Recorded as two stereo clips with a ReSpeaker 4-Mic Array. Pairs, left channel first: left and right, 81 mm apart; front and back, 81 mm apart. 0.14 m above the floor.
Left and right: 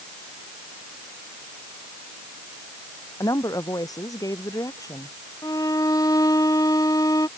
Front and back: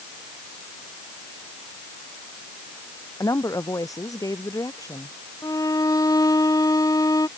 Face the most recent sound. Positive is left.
turn(degrees=45)